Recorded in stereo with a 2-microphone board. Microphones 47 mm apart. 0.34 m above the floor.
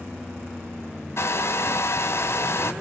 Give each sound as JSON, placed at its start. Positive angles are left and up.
{"t": 1.2, "sound": "a hair dryer", "side_deg": 65, "distance_m": 1.4}